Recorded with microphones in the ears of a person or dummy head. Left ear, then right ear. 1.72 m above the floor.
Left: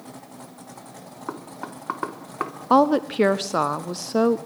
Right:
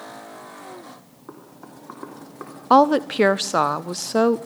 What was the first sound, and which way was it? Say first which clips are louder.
Knocking: left 8 dB; 75° left (ahead or behind).